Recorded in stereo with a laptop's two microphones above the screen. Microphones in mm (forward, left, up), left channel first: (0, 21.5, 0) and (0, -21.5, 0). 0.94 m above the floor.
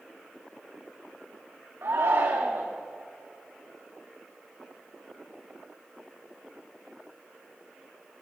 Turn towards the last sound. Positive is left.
turn(degrees=-65)  # may be behind; listen again after turning